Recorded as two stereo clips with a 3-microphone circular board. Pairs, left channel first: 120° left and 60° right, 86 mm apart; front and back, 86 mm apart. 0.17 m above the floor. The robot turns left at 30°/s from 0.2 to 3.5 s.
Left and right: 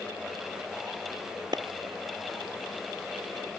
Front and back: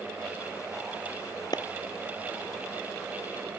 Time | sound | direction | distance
1.5 | a clap | 35° right | ?